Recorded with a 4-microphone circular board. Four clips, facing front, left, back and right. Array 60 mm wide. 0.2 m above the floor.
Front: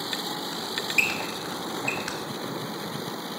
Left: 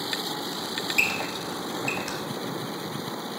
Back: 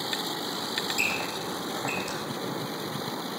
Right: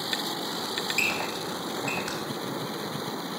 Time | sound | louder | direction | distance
0.5 | a squeak | left 5 dB, front 6 dB | 15° right | 2.5 m